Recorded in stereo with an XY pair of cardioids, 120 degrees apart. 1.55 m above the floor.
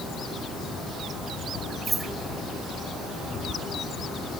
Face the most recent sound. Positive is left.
turn(degrees=-20)